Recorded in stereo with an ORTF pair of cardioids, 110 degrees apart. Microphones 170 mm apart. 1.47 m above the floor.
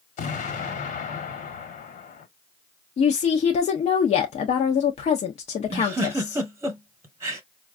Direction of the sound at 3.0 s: 40° left.